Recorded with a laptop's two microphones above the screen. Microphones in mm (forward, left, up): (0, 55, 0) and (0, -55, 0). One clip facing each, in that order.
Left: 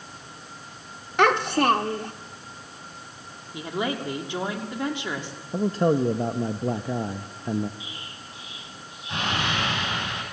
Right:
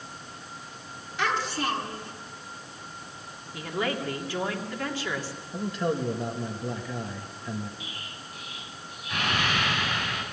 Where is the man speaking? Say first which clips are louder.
Left 7 dB; 35° left (ahead or behind), 1.0 m.